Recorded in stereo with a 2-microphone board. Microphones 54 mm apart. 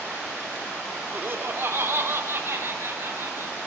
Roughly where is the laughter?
Right.